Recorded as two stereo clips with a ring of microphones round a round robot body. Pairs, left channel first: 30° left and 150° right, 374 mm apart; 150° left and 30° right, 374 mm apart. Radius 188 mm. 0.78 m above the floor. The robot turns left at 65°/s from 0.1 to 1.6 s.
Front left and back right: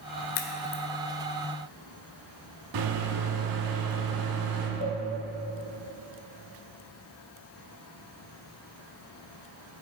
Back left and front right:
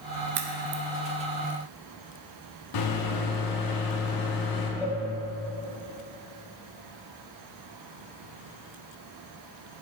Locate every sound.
0.3 s a crack: 20° left, 0.8 m; by 0.8 s 10° right, 0.8 m
2.7 s a microwave: straight behind, 1.4 m
4.8 s a cowbell: 125° right, 2.5 m